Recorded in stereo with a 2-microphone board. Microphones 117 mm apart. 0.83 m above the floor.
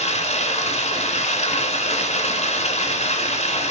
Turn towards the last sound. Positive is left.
turn(degrees=80)